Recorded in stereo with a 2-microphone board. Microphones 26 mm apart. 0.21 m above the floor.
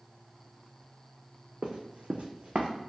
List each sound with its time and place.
1.6 s running footsteps: 50° right (ahead or behind), 0.6 m; by 2.7 s 55° right (ahead or behind), 0.6 m